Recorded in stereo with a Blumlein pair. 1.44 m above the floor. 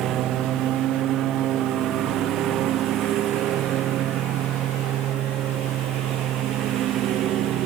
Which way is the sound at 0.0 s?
35° right.